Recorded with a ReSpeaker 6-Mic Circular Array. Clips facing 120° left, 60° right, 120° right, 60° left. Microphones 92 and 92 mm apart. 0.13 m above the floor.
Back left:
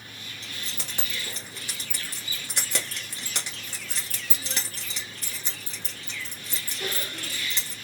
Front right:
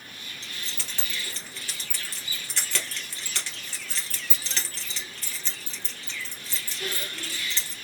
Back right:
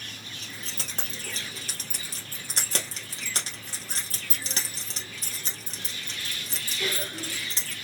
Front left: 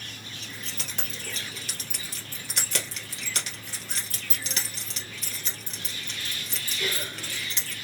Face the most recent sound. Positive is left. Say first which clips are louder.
# back left 1 dB, even
turn(degrees=-170)